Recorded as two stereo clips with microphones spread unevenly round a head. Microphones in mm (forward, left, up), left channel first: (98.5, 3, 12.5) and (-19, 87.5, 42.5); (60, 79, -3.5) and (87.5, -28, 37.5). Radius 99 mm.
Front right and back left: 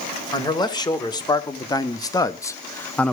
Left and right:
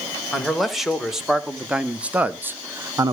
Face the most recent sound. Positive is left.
turn(degrees=-15)